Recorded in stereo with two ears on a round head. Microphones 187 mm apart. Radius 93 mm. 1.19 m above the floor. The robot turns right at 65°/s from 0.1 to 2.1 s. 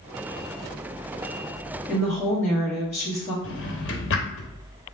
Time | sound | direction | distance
1.9 | a woman speaking | 5° right (ahead or behind) | 1.5 m
3.4 | a drawer | 60° left (ahead or behind) | 0.9 m